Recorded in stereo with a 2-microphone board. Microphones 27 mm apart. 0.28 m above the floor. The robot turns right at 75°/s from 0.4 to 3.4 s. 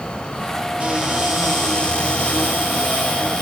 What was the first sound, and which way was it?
A cupboard door, 45° right.